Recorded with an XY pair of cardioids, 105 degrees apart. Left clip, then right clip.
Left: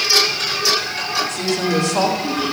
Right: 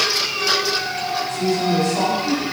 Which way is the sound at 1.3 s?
65° left.